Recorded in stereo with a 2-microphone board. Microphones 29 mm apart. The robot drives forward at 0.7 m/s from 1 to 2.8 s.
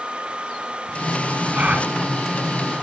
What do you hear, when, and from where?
1.5 s a gasp: 55° right (ahead or behind), 1.2 m; by 1.9 s 45° right (ahead or behind), 1.3 m